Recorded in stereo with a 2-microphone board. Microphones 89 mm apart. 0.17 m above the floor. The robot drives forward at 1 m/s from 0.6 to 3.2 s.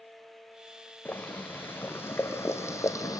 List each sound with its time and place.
1.1 s boiling: 20° left (ahead or behind), 4 m; by 3.2 s 40° left (ahead or behind), 2.0 m